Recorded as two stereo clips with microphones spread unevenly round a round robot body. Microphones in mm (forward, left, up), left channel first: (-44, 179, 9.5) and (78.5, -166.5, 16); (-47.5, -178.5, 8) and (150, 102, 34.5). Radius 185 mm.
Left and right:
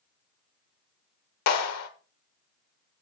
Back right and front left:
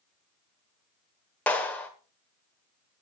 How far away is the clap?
About 1.3 m.